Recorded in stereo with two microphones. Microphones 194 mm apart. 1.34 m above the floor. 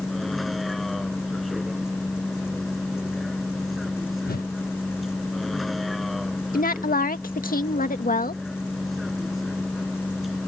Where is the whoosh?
50° left (ahead or behind).